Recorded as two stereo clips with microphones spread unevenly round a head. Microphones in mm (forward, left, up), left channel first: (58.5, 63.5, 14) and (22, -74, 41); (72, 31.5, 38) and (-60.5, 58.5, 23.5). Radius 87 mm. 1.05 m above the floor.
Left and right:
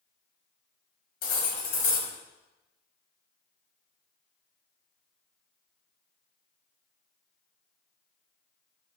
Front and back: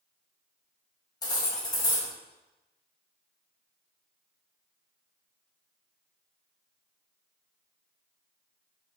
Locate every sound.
1.2 s cutlery clinking: 50° left, 0.9 m